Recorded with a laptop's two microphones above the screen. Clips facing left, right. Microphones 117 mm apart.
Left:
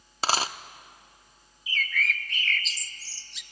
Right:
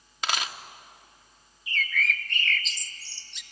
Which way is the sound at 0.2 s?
35° left (ahead or behind).